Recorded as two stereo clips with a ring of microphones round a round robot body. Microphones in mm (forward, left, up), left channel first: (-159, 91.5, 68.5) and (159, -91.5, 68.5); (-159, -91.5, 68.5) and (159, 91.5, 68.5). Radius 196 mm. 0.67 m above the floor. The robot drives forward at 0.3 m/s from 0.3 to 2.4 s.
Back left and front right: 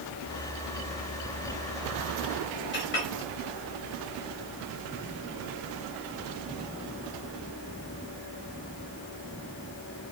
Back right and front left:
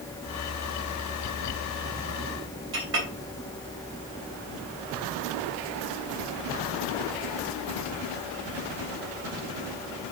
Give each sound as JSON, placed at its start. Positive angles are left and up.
{"t": 2.7, "sound": "a clink", "azimuth_deg": 90, "distance_m": 3.0}